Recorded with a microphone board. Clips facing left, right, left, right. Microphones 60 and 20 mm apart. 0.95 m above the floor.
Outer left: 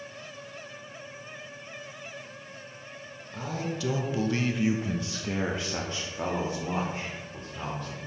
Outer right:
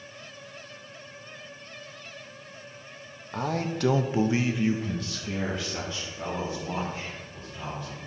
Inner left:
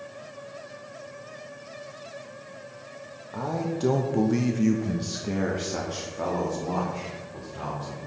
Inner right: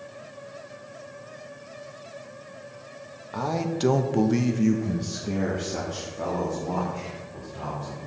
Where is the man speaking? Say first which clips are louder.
Outer right 4 dB, inner right 2 dB; 60° right (ahead or behind), 1.2 m; by 8.0 s 50° left (ahead or behind), 3.5 m.